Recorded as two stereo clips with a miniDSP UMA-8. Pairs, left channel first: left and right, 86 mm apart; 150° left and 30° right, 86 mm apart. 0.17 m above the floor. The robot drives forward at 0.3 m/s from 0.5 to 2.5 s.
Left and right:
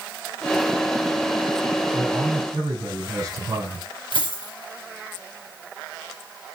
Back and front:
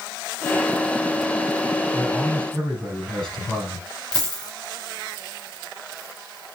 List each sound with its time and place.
1.9 s a man speaking: 130° right, 5 m; by 3.9 s 135° right, 5.5 m
4.1 s a dropped coin: 70° right, 4.5 m